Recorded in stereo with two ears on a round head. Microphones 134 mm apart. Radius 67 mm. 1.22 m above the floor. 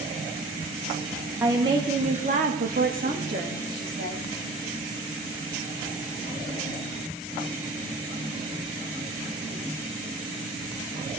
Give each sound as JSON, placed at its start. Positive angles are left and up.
{"t": 1.4, "sound": "a woman speaking", "side_deg": -15, "distance_m": 1.1}